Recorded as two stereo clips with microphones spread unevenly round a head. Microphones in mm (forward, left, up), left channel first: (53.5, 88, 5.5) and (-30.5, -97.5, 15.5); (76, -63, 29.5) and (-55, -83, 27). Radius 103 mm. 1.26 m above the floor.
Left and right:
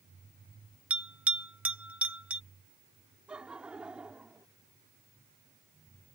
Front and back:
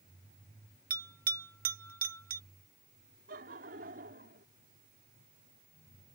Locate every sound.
0.9 s a bell: 160° left
3.3 s laughter: 160° left